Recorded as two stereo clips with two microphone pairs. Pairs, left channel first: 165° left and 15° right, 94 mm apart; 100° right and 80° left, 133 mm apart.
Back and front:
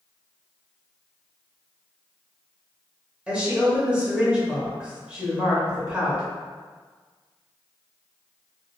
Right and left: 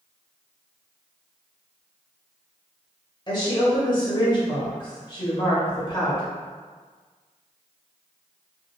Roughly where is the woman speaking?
Right.